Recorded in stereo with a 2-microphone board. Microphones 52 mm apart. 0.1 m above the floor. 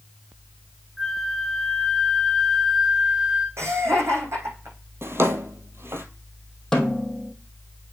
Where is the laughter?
60° right (ahead or behind), 4.5 m.